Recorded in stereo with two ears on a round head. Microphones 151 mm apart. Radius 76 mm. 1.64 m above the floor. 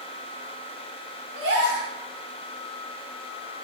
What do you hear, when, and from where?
1.4 s a gasp: 75° right (ahead or behind), 1.0 m